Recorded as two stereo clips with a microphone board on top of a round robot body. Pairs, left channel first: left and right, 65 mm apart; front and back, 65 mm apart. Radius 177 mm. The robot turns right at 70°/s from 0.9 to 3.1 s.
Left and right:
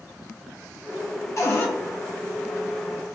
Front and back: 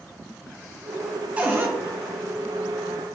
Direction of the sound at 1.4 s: 115° left.